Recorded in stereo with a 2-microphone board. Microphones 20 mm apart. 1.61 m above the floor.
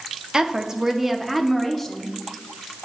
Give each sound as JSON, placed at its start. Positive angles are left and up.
{"t": 0.3, "sound": "a woman speaking", "side_deg": -45, "distance_m": 0.7}